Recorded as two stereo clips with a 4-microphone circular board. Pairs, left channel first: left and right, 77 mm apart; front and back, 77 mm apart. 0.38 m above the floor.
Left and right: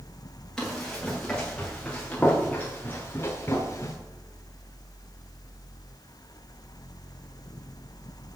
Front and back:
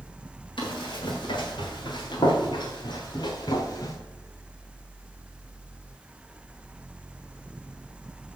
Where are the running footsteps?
5° left, 5.5 m; by 4.0 s 35° left, 2.5 m.